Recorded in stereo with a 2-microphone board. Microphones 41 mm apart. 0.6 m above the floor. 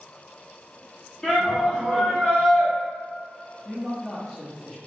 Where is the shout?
20° left (ahead or behind), 0.9 m; by 2.7 s 25° right (ahead or behind), 1.4 m.